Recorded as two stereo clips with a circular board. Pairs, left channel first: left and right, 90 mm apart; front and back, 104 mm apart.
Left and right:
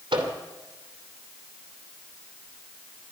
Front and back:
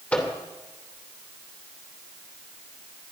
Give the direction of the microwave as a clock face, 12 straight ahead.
3 o'clock.